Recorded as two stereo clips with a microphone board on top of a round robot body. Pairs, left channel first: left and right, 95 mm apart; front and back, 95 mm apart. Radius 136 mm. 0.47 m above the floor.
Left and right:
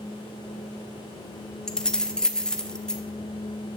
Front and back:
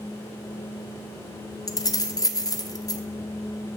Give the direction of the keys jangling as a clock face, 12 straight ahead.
12 o'clock.